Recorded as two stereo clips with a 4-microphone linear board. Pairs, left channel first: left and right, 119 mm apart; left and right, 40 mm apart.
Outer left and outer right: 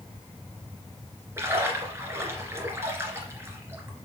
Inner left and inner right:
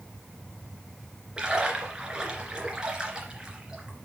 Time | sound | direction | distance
1.4 | a splash | 20° right (ahead or behind) | 2 m